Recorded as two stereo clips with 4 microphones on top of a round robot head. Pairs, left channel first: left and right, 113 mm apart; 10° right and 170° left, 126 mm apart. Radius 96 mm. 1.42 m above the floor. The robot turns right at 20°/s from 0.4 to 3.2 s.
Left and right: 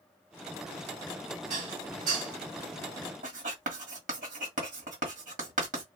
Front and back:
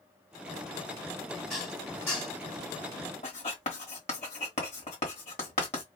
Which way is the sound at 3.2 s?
60° right.